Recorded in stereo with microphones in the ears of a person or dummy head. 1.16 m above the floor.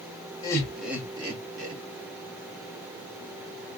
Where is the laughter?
20° left (ahead or behind), 0.7 m; by 1.8 s 45° right (ahead or behind), 0.9 m.